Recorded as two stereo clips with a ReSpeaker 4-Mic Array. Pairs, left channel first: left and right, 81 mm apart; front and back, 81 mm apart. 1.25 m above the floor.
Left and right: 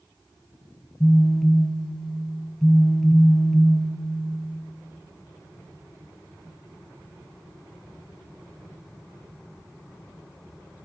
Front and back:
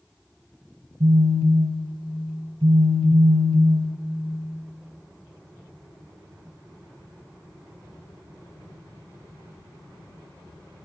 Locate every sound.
1.0 s a phone buzzing: 175° left, 0.8 m